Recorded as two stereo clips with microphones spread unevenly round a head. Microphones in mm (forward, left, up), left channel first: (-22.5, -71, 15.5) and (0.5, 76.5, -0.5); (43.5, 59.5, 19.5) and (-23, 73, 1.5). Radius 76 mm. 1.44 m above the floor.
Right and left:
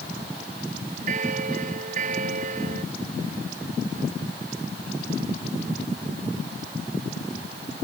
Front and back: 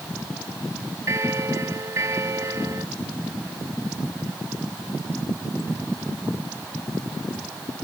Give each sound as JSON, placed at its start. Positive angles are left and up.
{"t": 1.1, "sound": "a bell", "azimuth_deg": 120}